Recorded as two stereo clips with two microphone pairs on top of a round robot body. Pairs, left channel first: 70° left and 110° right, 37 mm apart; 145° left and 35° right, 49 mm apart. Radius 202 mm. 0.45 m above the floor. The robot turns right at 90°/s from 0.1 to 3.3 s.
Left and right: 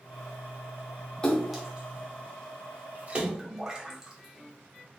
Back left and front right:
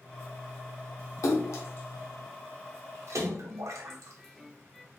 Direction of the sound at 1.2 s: 140° left.